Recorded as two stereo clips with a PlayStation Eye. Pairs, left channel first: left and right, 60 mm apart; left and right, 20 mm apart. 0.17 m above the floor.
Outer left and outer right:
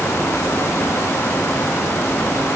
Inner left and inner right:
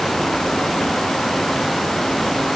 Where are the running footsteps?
I don't hear running footsteps.